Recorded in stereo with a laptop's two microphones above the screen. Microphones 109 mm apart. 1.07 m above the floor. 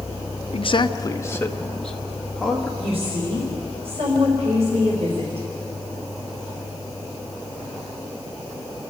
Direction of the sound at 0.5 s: 60° left (ahead or behind).